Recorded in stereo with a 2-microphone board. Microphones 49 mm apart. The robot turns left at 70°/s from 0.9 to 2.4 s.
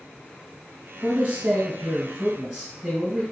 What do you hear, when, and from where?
1.0 s a man speaking: 70° right, 1.4 m; by 3.2 s 165° right, 1.4 m